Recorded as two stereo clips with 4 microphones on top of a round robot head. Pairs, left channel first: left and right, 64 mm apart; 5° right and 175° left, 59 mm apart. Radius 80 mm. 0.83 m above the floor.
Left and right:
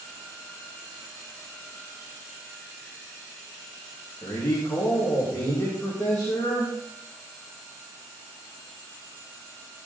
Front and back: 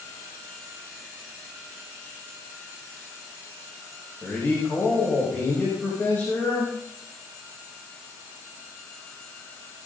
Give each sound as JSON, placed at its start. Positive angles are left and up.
{"t": 4.2, "sound": "a man speaking", "azimuth_deg": 50, "distance_m": 5.0}